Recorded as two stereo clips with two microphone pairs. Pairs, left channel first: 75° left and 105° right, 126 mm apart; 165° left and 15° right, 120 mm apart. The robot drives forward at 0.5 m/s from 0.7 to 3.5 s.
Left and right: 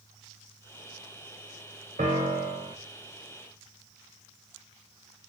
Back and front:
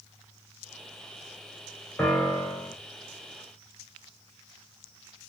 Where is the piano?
115° right, 3.5 m; by 2.8 s 120° right, 3.5 m.